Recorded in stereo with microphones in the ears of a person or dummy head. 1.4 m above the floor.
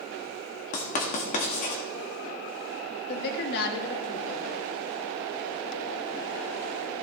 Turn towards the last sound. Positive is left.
turn(degrees=50)  # may be behind; listen again after turning